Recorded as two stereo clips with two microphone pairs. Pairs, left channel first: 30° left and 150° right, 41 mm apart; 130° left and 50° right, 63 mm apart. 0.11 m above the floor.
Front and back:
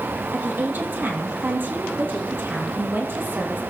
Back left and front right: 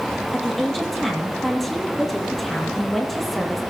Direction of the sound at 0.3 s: 145° right.